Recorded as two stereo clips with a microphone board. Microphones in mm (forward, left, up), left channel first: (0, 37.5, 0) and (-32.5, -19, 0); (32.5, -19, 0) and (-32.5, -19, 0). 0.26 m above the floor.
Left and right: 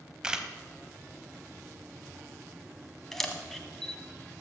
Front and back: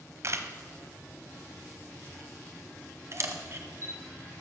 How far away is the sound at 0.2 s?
About 0.9 m.